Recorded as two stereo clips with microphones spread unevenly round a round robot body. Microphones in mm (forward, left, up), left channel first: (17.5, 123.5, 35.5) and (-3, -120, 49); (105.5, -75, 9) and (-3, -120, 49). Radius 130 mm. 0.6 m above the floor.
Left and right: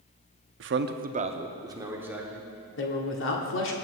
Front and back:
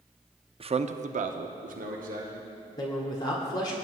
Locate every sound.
0.6 s a man speaking: 110° right, 0.7 m; by 2.5 s 175° left, 1.7 m
2.8 s a man speaking: 65° left, 1.5 m